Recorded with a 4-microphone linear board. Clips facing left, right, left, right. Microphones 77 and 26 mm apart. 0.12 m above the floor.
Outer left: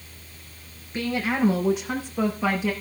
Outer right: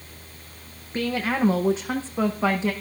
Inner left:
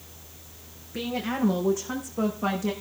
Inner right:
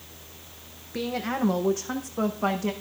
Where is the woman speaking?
35° right (ahead or behind), 5 m; by 2.7 s 25° right (ahead or behind), 6 m.